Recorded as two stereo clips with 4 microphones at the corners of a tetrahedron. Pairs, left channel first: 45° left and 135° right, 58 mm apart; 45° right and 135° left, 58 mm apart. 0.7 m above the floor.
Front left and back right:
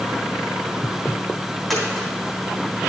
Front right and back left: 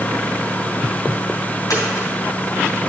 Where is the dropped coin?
40° right, 3.5 m.